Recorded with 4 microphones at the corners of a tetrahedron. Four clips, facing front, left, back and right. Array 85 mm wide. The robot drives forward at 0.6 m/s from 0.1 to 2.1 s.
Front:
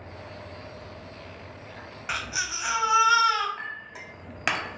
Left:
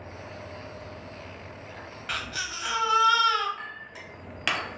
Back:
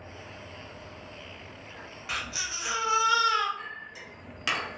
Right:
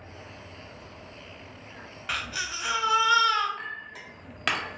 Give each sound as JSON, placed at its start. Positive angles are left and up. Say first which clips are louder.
{"t": 2.1, "sound": "a baby crying", "louder": "right 1 dB, front 4 dB", "azimuth_deg": 0, "distance_m": 0.7}
{"t": 3.6, "sound": "a clink", "louder": "right 2 dB, front 3 dB", "azimuth_deg": -15, "distance_m": 0.6}